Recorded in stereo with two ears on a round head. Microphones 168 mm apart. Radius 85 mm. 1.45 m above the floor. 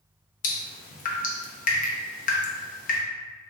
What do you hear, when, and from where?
0.4 s dripping: 40° left (ahead or behind), 0.6 m